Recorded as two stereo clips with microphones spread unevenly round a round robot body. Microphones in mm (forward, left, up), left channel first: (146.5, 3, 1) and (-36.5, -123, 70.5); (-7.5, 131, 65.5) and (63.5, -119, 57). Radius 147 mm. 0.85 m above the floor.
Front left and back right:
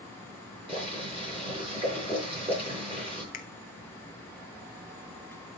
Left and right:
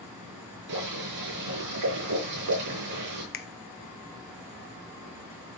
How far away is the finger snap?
About 1.0 m.